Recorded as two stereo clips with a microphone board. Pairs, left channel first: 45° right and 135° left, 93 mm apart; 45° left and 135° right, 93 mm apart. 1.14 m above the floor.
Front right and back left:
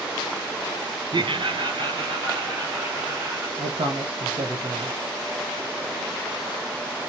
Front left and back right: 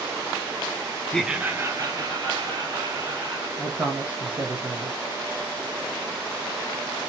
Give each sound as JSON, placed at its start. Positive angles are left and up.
{"t": 1.1, "sound": "laughter", "azimuth_deg": 120, "distance_m": 0.5}
{"t": 3.6, "sound": "a man speaking", "azimuth_deg": 150, "distance_m": 1.4}